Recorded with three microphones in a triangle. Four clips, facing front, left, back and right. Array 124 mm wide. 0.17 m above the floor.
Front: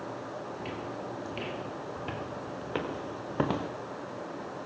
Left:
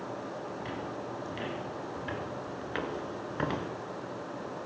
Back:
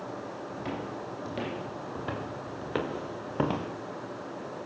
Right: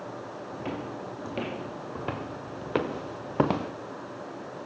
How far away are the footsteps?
About 6 m.